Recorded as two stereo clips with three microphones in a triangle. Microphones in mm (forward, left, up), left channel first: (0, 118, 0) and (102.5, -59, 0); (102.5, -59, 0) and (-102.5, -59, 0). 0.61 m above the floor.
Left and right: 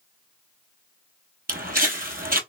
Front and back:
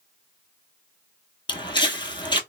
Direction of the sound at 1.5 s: 60° right.